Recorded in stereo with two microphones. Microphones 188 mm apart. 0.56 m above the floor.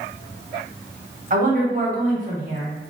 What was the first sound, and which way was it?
A woman speaking, 45° right (ahead or behind).